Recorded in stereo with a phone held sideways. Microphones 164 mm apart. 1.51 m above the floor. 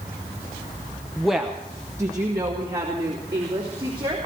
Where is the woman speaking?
5° left (ahead or behind), 0.6 m; by 4.2 s 30° right (ahead or behind), 3.5 m.